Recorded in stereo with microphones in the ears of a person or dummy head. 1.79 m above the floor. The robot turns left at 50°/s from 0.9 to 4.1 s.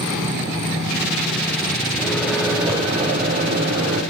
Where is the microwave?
10° left, 3.5 m; by 4.0 s 90° right, 3.5 m.